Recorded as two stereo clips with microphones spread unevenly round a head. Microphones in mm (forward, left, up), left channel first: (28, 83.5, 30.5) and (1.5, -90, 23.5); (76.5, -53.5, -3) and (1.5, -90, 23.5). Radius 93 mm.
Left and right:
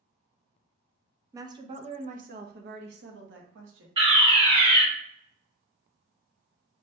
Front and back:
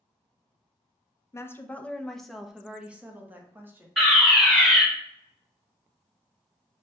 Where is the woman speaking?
25° right, 0.7 m; by 3.9 s 85° right, 1.5 m.